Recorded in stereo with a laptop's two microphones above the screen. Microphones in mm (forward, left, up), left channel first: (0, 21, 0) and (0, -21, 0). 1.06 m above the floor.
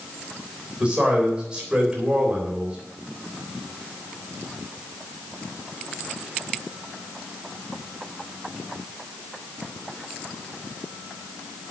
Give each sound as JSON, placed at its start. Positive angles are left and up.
{"t": 0.8, "sound": "a man speaking", "side_deg": -20, "distance_m": 3.5}